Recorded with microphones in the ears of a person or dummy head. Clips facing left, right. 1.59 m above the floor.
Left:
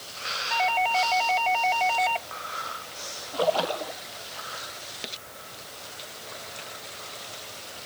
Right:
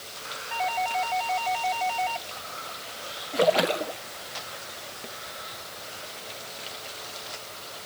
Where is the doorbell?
60° left (ahead or behind).